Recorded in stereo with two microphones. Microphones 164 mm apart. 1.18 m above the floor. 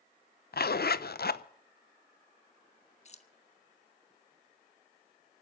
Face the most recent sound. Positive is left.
turn(degrees=40)  # may be behind; listen again after turning